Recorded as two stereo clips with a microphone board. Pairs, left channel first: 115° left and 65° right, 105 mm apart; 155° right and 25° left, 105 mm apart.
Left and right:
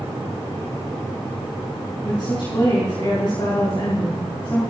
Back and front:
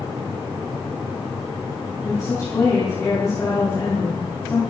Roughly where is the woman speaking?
Behind left.